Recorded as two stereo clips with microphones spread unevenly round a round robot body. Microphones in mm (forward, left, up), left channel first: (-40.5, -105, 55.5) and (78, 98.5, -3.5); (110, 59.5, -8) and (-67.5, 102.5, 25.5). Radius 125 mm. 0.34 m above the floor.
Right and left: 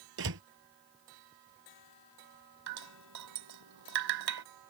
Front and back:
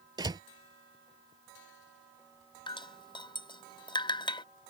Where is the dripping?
50° left.